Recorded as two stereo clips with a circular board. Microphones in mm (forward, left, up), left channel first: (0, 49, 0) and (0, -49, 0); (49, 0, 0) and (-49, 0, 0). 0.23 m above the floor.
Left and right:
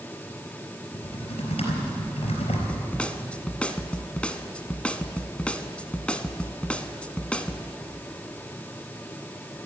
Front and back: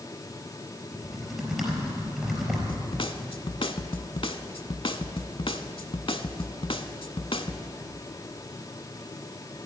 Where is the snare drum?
15° left, 0.7 m.